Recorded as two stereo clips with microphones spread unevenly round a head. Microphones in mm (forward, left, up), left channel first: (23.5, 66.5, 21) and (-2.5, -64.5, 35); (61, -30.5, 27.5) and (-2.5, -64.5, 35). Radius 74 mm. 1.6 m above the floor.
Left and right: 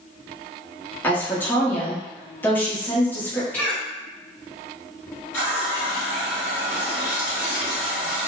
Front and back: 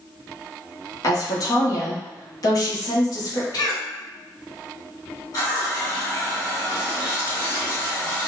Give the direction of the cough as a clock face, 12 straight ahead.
12 o'clock.